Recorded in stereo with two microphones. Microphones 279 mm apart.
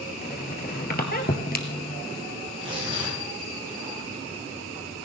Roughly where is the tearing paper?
Centre.